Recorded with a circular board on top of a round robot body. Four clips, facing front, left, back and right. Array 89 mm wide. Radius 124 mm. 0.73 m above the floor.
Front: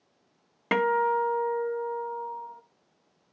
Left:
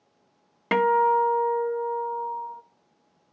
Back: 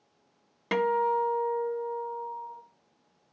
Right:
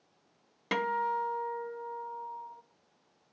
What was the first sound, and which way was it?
A guitar, 50° left.